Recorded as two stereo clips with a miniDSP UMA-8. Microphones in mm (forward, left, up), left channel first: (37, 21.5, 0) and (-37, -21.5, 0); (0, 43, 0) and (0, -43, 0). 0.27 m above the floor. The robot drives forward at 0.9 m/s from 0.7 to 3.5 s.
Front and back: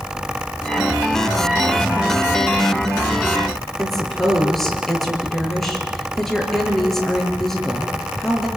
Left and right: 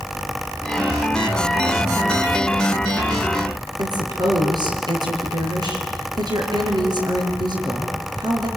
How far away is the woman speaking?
About 5.5 m.